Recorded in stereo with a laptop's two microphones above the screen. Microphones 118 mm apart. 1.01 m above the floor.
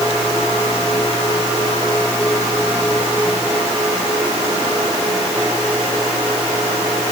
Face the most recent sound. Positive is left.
No sound to turn to.